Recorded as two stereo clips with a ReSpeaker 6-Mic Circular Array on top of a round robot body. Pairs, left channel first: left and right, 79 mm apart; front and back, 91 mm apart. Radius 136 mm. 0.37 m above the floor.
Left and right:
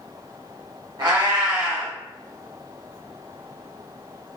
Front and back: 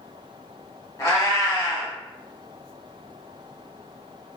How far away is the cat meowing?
About 1.7 m.